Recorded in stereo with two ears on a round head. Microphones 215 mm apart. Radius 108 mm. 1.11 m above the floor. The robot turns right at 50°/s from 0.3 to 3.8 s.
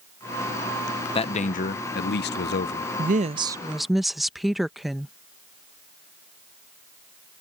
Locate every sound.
1.1 s a man speaking: 35° left; by 2.9 s 120° left
3.0 s a woman speaking: 40° right; by 5.1 s straight ahead